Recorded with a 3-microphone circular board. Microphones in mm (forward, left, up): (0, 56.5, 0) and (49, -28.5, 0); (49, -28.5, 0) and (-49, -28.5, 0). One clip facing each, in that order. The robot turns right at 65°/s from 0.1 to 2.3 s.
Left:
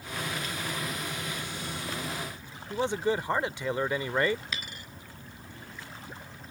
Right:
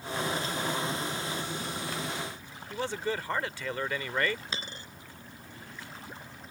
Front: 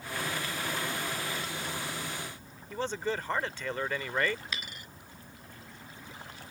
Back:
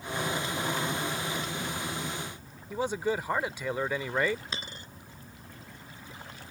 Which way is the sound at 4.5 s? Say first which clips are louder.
Right 1 dB, back 1 dB; 120° right.